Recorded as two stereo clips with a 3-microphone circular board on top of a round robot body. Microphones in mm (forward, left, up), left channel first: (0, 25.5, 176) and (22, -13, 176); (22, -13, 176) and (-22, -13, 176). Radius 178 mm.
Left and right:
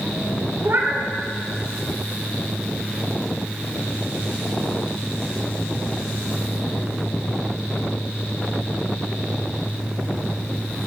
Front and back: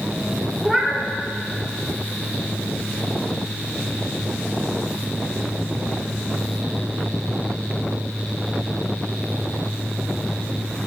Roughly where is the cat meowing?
Right.